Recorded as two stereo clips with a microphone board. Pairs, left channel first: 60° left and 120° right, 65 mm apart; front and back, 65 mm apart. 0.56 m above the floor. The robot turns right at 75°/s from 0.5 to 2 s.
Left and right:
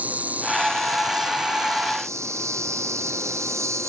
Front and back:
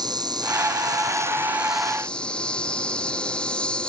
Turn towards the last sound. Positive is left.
turn(degrees=-75)